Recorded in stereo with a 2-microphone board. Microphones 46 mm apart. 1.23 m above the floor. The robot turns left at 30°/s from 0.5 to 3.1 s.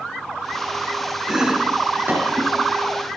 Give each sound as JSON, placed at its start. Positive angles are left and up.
{"t": 1.3, "sound": "chopping", "side_deg": -15, "distance_m": 7.5}